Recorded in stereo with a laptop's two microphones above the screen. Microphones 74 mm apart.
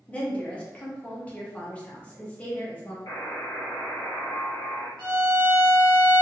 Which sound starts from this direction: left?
A buzzer, at 3.1 s.